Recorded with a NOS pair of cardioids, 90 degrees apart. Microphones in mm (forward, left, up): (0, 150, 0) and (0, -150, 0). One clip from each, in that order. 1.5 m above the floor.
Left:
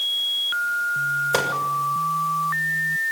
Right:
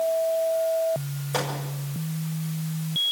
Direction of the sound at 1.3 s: 55° left.